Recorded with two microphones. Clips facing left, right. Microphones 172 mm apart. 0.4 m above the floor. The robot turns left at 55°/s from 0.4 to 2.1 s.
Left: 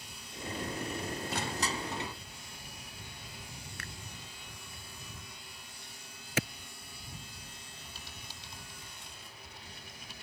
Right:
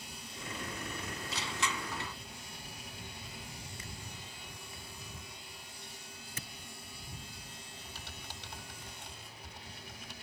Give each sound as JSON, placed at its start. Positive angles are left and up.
{"t": 1.3, "sound": "crushing", "azimuth_deg": 55}
{"t": 3.8, "sound": "a finger snap", "side_deg": 65}
{"t": 6.4, "sound": "a clap", "side_deg": 80}
{"t": 8.0, "sound": "typing on a keyboard", "side_deg": -65}